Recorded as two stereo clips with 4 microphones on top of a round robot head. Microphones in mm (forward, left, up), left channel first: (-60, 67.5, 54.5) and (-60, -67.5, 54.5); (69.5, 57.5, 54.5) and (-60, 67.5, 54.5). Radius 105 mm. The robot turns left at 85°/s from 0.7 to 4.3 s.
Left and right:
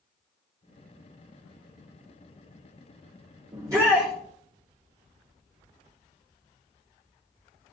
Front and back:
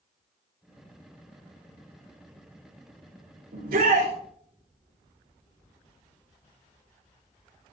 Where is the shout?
140° right, 5 m; by 4.1 s 170° left, 5 m.